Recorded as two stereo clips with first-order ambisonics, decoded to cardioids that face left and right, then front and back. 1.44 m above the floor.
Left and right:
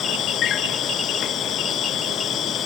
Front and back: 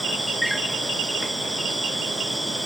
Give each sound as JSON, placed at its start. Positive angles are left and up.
{"t": 0.0, "sound": "an insect", "azimuth_deg": 90}